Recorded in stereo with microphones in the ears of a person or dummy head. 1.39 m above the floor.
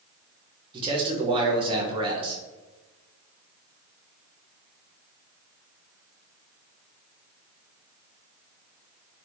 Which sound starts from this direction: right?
A man speaking, at 0.7 s.